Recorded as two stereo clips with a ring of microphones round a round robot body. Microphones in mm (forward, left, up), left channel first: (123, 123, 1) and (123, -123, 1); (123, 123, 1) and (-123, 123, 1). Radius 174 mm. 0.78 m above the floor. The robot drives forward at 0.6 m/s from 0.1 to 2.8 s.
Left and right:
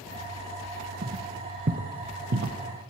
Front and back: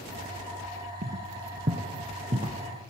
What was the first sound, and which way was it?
Footsteps, 140° right.